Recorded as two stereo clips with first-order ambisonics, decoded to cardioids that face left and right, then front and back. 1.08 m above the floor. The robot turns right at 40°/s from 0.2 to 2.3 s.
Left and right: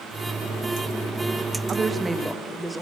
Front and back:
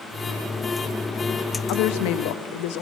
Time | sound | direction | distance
1.7 | a woman speaking | 20° right | 0.9 m